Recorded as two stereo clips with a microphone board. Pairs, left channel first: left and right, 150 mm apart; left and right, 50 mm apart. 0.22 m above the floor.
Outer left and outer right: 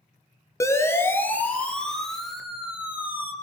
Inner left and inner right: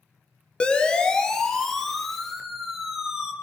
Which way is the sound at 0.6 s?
20° left (ahead or behind).